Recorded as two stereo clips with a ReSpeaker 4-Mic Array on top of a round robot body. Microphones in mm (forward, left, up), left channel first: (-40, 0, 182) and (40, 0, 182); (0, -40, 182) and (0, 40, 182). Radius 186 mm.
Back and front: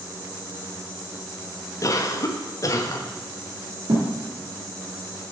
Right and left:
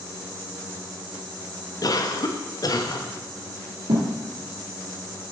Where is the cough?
130° right, 1.1 m.